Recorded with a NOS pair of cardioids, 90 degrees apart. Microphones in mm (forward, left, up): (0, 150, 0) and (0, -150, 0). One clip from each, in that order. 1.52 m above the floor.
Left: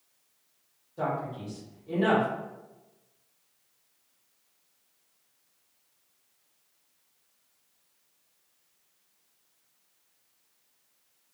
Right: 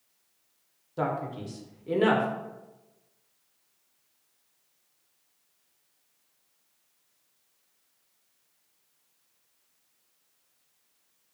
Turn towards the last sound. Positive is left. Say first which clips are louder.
# right 1 dB
turn(degrees=-55)